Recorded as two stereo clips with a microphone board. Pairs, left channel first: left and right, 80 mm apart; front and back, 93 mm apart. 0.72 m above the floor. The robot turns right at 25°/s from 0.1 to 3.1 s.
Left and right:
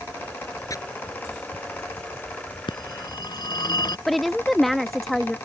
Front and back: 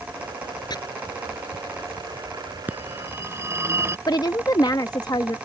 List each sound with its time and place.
0.7 s chopping: 40° left; by 0.8 s 45° left
2.7 s a phone ringing: 110° left; by 4.0 s 120° left
4.1 s a woman speaking: straight ahead